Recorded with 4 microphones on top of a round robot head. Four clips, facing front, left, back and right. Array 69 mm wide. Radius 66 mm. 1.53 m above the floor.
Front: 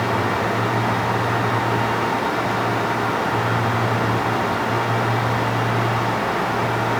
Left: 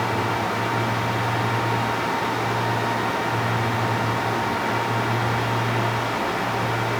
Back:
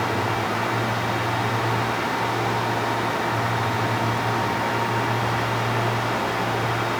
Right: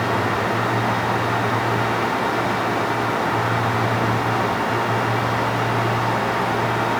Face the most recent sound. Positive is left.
No sound to turn to.